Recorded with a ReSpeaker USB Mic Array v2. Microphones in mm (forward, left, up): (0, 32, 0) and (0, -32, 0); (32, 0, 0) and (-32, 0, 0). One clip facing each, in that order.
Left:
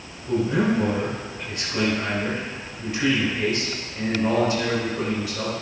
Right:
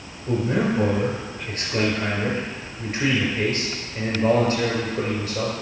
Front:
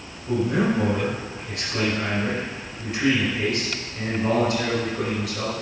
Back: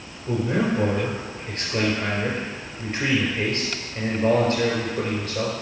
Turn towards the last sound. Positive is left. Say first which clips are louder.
# left 1 dB, front 1 dB
turn(degrees=-125)